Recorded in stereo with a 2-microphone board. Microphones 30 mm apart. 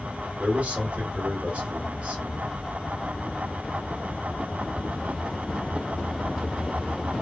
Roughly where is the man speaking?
Right.